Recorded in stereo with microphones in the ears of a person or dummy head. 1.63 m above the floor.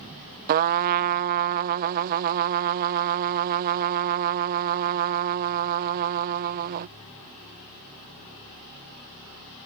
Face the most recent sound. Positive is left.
turn(degrees=-45)  # may be behind; listen again after turning